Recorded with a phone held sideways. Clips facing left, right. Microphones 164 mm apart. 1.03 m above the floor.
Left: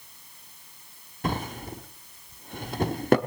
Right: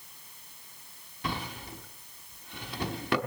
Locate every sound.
1.2 s a drawer: 45° left (ahead or behind), 0.8 m